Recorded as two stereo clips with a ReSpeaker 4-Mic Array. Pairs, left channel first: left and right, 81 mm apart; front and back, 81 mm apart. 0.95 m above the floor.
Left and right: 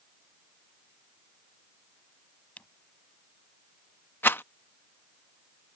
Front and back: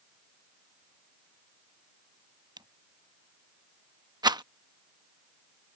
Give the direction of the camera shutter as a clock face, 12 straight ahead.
7 o'clock.